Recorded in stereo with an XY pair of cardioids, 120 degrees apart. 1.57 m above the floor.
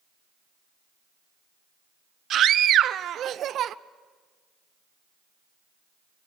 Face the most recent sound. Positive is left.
turn(degrees=-55)